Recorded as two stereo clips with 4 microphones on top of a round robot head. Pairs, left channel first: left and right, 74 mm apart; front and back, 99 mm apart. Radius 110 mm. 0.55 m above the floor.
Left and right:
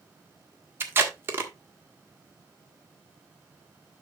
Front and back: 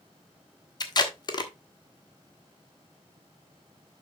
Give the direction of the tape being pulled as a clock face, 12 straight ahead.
1 o'clock.